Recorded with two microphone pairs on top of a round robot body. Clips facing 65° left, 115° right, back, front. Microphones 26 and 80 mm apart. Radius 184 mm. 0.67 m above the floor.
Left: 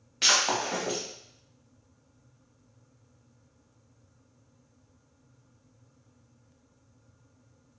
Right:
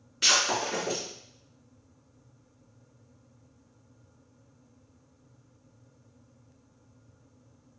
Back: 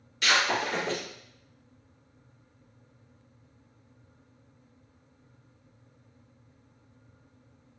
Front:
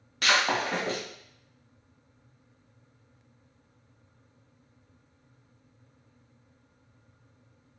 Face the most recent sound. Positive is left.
turn(degrees=40)